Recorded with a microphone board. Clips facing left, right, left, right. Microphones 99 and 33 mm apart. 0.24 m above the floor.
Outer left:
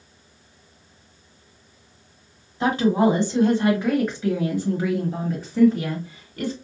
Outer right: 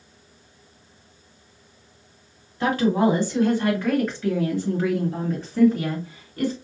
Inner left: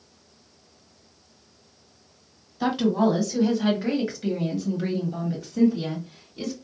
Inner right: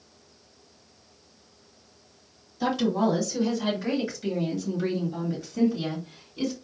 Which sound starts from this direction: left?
A woman speaking, at 2.6 s.